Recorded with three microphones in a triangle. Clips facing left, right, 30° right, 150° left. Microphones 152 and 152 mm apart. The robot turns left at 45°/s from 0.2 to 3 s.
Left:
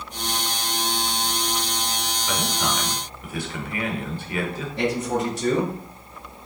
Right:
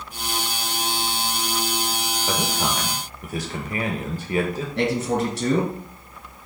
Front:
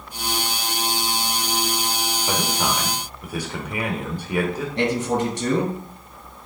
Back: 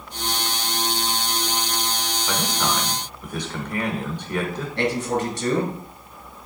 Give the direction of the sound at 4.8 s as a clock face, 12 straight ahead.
3 o'clock.